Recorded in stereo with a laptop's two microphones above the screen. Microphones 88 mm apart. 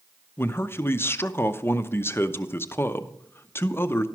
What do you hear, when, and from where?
0.4 s a man speaking: 25° left (ahead or behind), 0.6 m